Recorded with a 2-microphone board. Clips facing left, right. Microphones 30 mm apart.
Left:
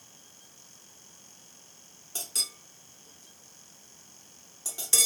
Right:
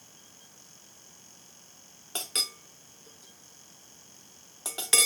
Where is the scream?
No scream in this recording.